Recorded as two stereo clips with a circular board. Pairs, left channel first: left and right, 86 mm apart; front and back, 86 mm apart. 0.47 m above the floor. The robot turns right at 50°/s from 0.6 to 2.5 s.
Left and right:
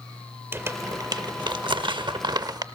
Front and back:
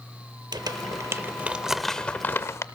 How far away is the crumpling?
About 0.7 m.